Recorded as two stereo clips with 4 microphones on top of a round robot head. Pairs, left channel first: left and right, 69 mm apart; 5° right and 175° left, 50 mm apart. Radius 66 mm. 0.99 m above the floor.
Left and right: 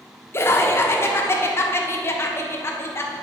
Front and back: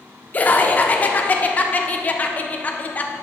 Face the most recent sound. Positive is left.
turn(degrees=45)